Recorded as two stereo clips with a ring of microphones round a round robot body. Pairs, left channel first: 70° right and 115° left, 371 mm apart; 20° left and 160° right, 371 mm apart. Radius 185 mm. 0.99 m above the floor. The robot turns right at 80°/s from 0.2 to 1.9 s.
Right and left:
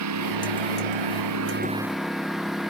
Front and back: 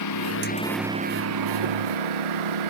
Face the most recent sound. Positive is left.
turn(degrees=-160)